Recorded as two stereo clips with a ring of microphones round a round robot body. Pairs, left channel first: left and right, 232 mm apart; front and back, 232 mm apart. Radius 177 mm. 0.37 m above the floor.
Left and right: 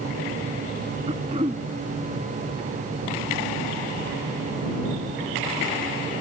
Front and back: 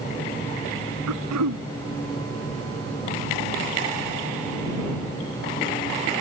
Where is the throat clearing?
165° right.